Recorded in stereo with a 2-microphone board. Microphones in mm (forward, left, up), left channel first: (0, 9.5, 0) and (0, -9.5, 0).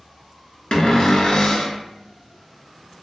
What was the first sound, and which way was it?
A cupboard door, 45° left (ahead or behind).